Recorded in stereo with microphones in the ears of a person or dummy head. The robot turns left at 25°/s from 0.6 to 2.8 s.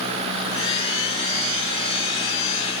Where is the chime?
I don't hear a chime.